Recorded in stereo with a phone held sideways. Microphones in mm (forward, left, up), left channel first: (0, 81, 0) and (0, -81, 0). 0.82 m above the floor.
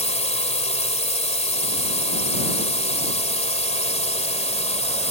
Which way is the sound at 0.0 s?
40° left (ahead or behind).